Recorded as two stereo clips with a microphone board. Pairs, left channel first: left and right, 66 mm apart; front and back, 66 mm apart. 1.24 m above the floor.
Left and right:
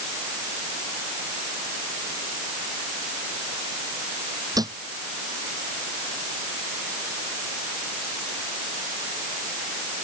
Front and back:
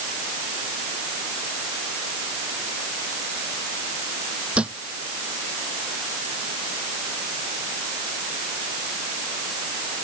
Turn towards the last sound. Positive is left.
turn(degrees=-110)